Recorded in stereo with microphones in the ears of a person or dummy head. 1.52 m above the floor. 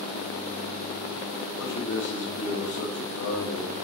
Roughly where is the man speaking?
Left.